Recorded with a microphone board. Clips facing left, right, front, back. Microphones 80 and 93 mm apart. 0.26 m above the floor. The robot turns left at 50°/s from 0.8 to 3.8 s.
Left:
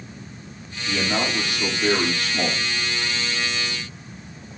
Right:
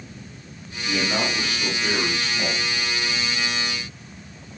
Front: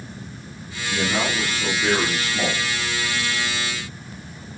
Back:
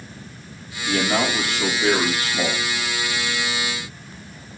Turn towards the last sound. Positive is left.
turn(degrees=50)